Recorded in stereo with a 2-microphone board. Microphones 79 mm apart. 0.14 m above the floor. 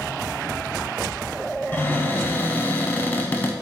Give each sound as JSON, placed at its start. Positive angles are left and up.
{"t": 1.7, "sound": "a cupboard door", "side_deg": 20, "distance_m": 0.7}